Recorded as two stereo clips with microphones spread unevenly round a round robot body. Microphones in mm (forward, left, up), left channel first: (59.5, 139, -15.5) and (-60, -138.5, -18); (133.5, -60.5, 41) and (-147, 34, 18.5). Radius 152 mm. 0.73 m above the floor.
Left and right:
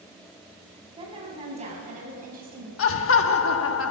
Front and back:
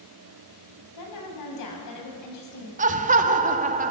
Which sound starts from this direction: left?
Laughter, at 2.8 s.